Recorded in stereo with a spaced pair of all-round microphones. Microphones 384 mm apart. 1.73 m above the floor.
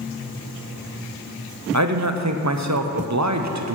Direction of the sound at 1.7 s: 50° right (ahead or behind).